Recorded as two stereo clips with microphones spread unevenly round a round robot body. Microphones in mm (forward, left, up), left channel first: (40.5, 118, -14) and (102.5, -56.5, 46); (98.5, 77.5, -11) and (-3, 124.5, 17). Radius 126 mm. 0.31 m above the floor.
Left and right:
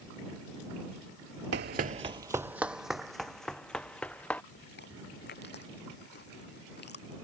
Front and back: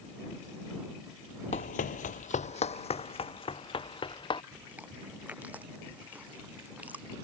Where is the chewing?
80° left.